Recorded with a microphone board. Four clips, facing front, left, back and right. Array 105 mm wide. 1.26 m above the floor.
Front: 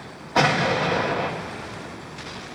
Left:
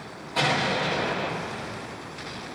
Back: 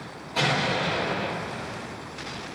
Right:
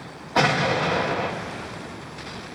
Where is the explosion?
40° right, 1.1 m.